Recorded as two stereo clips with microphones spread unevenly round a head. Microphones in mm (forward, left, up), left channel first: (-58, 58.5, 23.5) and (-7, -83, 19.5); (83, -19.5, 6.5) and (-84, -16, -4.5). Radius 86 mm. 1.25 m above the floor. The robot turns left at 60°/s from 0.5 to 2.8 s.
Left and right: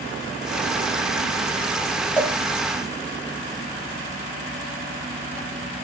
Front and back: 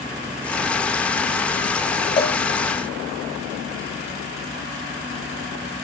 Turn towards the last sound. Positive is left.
turn(degrees=0)